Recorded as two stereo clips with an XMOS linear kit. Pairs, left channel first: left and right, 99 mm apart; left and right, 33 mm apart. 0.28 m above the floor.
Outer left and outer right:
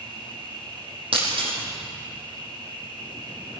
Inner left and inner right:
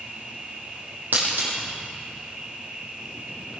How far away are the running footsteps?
No running footsteps in this recording.